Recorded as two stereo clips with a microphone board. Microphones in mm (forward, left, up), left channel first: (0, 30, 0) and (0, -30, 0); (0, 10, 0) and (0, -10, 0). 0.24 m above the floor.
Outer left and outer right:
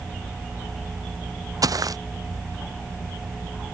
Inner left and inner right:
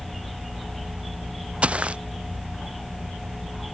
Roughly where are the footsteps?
Right.